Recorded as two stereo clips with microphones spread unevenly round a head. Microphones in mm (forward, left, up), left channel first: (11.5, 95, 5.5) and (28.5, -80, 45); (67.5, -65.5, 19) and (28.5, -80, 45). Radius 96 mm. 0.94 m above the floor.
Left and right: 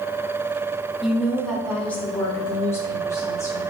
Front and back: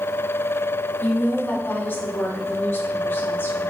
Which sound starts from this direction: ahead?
A woman speaking, at 1.0 s.